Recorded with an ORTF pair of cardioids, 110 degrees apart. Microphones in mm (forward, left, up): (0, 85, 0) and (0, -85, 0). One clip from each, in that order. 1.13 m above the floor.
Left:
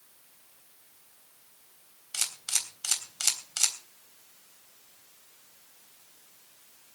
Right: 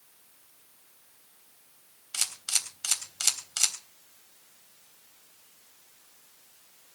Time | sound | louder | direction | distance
2.1 | a camera shutter | right 1 dB | 10° right | 3.5 m